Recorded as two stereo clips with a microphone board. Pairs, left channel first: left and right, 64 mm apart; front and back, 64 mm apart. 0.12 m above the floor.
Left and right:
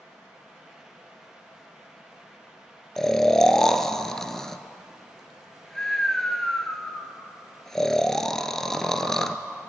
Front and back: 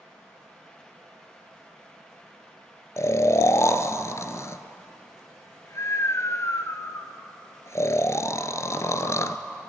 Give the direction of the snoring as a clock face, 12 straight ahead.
12 o'clock.